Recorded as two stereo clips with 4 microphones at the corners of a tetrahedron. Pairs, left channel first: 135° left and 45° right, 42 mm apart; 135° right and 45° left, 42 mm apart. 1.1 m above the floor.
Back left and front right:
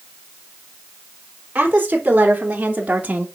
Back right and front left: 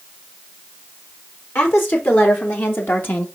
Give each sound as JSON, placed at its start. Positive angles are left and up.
{"t": 1.6, "sound": "a woman speaking", "azimuth_deg": -100, "distance_m": 3.5}